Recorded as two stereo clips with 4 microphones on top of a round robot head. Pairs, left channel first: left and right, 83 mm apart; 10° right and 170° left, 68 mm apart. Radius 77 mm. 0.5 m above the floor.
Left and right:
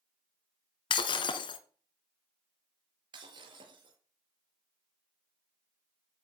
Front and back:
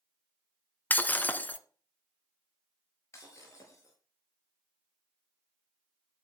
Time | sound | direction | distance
0.9 | breaking glass | 55° left | 1.7 m
3.1 | breaking glass | 60° right | 6 m